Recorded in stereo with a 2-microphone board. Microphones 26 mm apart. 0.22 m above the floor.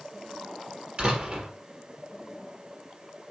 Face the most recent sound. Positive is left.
turn(degrees=-45)  # may be behind; listen again after turning